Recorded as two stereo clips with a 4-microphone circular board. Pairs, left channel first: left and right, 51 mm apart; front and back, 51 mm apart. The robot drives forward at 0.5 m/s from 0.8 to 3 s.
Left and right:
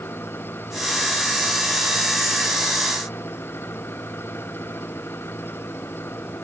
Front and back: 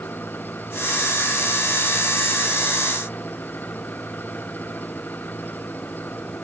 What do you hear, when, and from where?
0.0 s an engine running: 50° left